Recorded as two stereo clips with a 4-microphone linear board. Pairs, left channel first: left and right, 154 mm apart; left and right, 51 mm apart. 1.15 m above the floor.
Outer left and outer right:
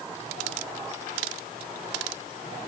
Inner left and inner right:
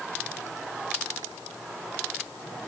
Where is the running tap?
No running tap in this recording.